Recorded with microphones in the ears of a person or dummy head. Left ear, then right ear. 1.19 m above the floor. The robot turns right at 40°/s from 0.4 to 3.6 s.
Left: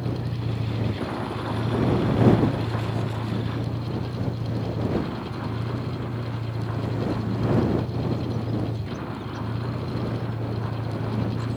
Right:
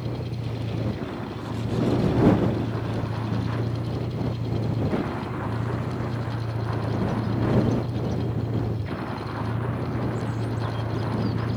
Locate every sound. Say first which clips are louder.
0.0 s a vehicle: left 2 dB; 70° left; by 11.6 s 165° right